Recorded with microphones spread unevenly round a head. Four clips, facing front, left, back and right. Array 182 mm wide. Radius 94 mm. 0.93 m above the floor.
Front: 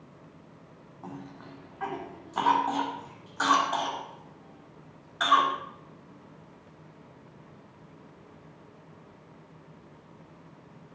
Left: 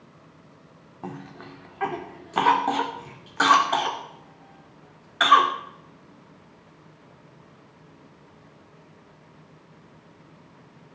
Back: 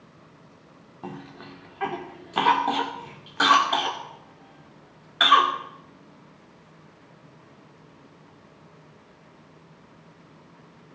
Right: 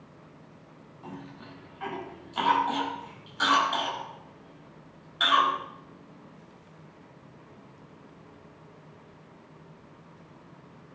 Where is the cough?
120° left, 2 m.